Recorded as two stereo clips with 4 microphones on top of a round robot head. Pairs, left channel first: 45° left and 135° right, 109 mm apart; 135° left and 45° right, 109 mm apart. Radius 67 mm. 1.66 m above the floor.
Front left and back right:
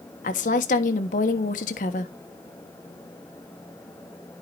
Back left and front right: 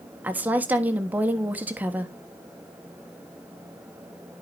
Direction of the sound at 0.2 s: 35° left.